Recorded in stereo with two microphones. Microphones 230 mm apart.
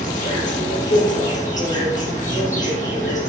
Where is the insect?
35° left (ahead or behind), 3.5 m.